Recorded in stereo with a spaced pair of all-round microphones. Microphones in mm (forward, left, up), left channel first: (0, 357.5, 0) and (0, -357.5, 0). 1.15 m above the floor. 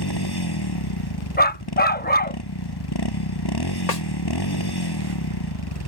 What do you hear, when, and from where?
0.0 s a motorcycle: 30° left (ahead or behind)
1.4 s a dog barking: 15° left (ahead or behind)
3.9 s a snare drum: 60° left (ahead or behind)